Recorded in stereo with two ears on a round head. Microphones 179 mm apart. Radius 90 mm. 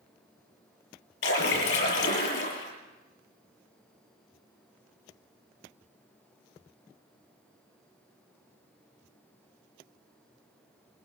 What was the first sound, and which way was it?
A splash, 60° left (ahead or behind).